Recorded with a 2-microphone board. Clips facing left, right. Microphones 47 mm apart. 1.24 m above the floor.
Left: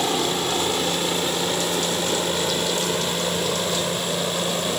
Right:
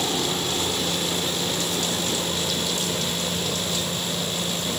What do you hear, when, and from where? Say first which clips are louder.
0.0 s a helicopter: left 3 dB; 30° left (ahead or behind); by 4.8 s 45° left (ahead or behind)